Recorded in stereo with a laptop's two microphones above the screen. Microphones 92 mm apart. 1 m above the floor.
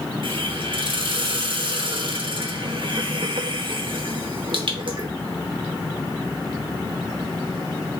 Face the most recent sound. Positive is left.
turn(degrees=-65)  # may be behind; listen again after turning